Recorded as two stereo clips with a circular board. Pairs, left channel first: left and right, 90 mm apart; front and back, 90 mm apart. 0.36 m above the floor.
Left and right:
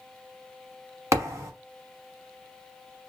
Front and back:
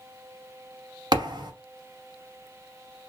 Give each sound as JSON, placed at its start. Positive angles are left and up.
{"t": 1.1, "sound": "a thud", "azimuth_deg": -145, "distance_m": 0.9}